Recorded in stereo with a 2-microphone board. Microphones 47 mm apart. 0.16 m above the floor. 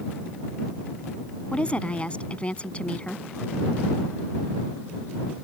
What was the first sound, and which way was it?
A woman speaking, 30° left (ahead or behind).